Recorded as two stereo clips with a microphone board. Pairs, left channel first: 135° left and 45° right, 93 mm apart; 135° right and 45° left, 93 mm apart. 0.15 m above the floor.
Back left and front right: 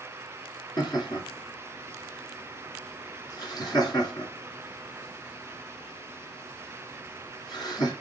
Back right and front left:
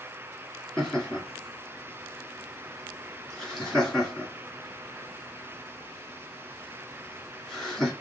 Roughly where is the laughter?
Behind left.